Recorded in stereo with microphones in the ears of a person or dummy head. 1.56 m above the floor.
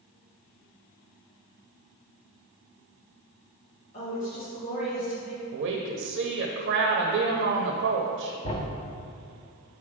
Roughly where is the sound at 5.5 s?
Right.